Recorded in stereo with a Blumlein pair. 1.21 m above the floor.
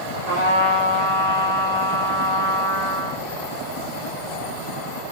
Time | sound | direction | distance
0.3 | a trumpet | 45° right | 3 m